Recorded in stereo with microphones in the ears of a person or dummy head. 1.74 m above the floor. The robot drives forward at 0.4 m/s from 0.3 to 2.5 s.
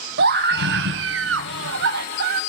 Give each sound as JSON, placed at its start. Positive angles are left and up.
{"t": 0.2, "sound": "a scream", "side_deg": -55, "distance_m": 1.0}